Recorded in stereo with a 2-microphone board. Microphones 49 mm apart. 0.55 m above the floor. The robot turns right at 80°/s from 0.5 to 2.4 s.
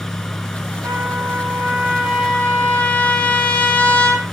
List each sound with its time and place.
0.8 s a trumpet: 100° right, 5.5 m; by 4.2 s 25° left, 5.5 m